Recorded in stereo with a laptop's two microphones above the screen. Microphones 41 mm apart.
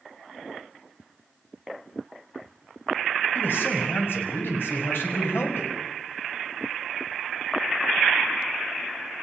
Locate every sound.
3.4 s a man speaking: 60° left (ahead or behind), 5.5 m; by 5.7 s 75° left (ahead or behind), 5.5 m